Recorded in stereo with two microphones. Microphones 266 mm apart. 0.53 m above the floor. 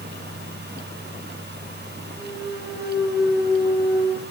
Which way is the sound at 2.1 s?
10° right (ahead or behind).